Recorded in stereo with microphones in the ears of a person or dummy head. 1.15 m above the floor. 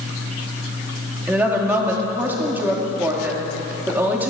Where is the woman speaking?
5° right (ahead or behind), 2.5 m.